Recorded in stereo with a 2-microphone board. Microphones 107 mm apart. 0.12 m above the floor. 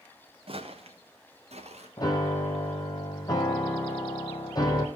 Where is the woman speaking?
I don't hear a woman speaking.